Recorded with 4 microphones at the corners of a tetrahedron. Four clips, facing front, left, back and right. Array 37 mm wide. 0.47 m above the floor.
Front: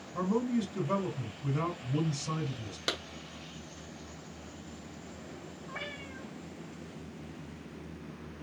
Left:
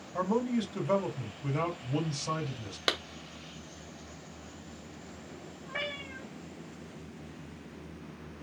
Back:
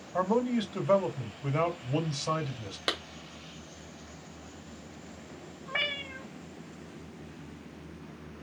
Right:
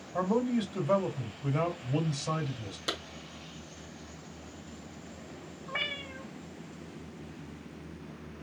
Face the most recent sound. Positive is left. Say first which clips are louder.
# right 2 dB, back 10 dB
turn(degrees=-165)